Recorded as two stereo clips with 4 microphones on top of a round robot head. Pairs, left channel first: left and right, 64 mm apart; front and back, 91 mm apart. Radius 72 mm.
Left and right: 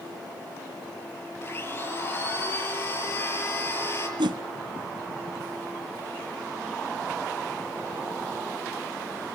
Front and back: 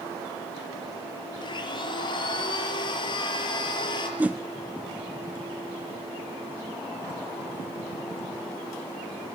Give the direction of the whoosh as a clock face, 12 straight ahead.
3 o'clock.